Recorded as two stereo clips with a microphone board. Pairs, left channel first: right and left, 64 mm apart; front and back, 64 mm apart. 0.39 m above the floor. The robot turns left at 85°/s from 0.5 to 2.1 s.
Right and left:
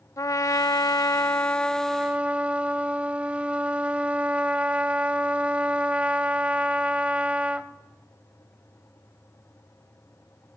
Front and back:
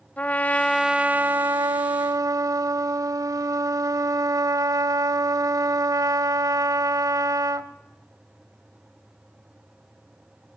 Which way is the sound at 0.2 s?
65° right.